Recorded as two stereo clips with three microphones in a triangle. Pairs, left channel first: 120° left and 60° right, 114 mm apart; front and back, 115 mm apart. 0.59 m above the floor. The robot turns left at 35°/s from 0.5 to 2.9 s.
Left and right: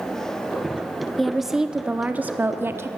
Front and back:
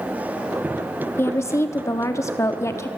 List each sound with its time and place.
1.2 s a woman speaking: 35° left, 0.8 m; by 2.9 s 25° right, 0.8 m